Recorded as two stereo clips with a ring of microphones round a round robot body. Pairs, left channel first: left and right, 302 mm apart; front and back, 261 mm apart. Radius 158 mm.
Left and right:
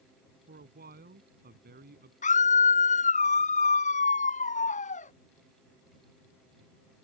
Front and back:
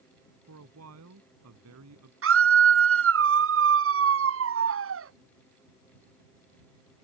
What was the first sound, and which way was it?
A man speaking, 150° right.